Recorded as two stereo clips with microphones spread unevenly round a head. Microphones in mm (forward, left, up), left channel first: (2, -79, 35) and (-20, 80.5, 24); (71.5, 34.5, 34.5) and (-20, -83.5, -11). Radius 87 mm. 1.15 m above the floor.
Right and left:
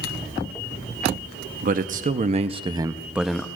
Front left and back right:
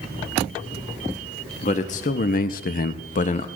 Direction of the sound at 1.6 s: 110° left.